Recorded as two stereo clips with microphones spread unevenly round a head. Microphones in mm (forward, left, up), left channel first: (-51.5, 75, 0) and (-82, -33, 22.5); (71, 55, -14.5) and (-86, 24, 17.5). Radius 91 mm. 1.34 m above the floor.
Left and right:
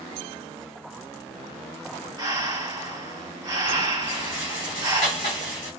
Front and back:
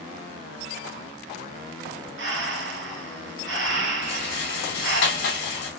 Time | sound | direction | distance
2.2 | breathing | 160° right | 1.3 m
4.0 | a rattle | 10° left | 2.5 m